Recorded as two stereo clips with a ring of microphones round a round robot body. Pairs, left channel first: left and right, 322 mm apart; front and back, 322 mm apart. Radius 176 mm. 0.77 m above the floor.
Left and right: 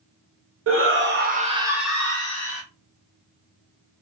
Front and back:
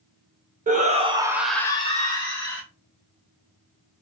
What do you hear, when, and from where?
0.7 s a shout: 120° right, 0.8 m; by 2.6 s 35° left, 0.7 m